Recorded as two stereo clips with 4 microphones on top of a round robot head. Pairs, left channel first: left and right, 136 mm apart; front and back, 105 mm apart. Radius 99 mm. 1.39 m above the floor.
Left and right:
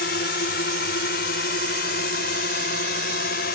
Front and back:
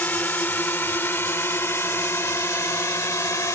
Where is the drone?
70° left; by 3.5 s 60° left.